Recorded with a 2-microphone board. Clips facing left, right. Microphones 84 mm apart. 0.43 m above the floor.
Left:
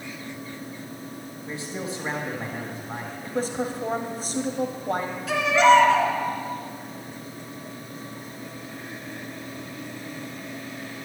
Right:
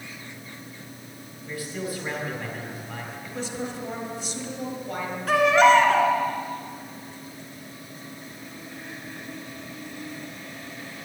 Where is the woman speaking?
45° left (ahead or behind), 2 m.